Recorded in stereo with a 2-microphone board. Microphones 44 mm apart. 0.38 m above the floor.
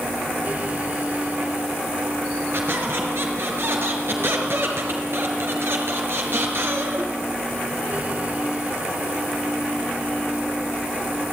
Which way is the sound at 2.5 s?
65° right (ahead or behind).